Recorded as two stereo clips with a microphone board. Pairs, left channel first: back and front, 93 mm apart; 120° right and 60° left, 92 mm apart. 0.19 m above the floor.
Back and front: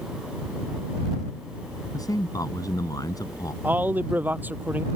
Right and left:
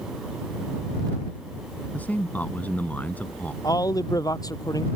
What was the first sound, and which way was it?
A man speaking, 175° left.